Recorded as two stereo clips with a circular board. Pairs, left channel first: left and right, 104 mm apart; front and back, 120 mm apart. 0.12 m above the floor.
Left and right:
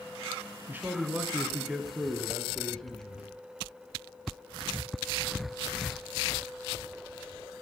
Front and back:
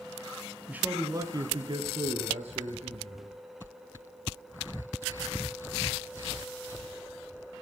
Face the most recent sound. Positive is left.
turn(degrees=170)